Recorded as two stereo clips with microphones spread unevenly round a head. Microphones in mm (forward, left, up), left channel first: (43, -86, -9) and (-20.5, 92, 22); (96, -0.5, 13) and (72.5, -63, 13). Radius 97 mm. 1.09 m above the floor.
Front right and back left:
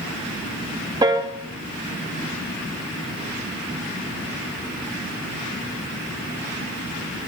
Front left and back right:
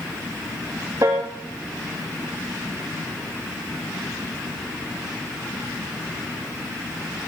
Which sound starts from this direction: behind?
A piano, at 1.0 s.